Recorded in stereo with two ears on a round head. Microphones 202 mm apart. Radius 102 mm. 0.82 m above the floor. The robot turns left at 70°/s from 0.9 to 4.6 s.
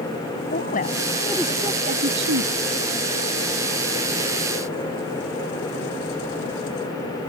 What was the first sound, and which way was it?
A woman speaking, 35° left.